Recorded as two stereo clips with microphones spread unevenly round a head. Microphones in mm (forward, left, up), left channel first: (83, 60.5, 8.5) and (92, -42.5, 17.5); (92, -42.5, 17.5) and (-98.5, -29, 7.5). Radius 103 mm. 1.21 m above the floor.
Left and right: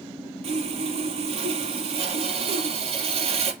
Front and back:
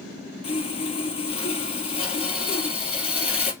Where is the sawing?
65° right, 2.5 m.